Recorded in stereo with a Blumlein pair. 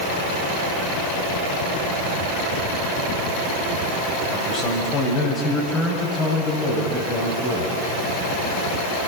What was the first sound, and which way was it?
A man speaking, 30° left.